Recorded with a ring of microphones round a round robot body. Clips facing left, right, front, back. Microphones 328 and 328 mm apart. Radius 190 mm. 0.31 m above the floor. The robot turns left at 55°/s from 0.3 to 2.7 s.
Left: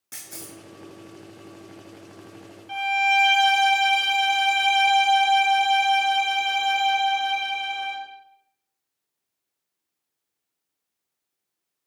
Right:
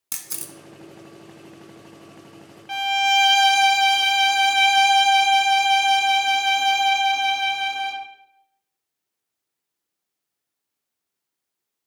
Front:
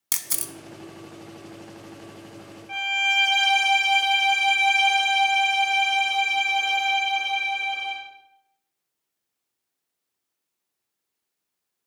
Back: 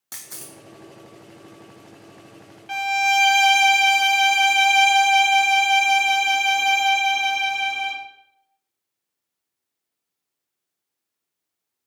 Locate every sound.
0.1 s a camera shutter: 45° right, 0.5 m; by 0.5 s 60° right, 0.5 m
2.7 s a violin: 140° right, 0.6 m